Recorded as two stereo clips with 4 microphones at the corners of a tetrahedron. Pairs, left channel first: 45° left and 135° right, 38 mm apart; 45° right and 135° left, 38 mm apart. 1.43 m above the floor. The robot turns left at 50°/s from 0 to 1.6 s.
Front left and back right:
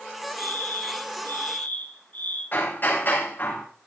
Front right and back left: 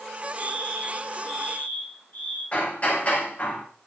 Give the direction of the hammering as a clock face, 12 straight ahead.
12 o'clock.